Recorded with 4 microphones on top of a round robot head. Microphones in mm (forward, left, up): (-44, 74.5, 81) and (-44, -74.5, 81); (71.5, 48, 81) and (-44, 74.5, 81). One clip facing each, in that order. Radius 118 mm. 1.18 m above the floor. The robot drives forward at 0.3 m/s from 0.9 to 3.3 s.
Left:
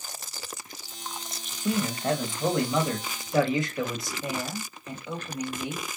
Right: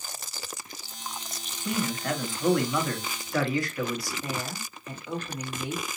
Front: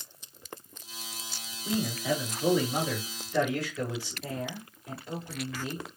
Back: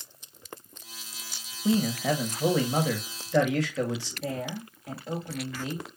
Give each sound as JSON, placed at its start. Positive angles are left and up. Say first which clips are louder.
{"t": 1.6, "sound": "a man speaking", "louder": "left 3 dB, back 5 dB", "azimuth_deg": 150, "distance_m": 1.8}
{"t": 4.2, "sound": "a woman speaking", "louder": "left 2 dB, back 4 dB", "azimuth_deg": 160, "distance_m": 2.0}